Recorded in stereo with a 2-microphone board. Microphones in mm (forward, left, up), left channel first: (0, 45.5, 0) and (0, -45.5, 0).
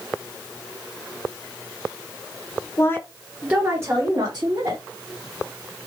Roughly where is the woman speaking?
Left.